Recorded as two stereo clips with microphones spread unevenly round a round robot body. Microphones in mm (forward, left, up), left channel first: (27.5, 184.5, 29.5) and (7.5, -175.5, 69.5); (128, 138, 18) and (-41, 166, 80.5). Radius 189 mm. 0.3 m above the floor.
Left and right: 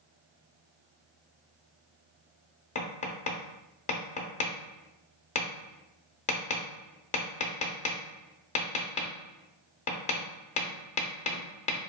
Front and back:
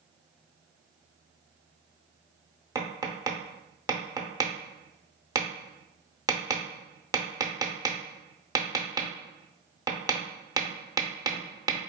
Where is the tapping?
75° left, 0.7 m.